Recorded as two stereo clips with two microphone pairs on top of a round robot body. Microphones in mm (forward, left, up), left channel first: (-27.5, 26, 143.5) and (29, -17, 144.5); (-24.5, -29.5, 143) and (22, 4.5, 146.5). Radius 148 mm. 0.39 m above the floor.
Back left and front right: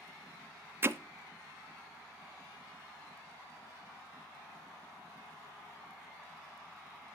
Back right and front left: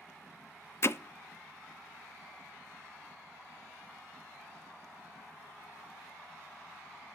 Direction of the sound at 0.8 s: 95° right.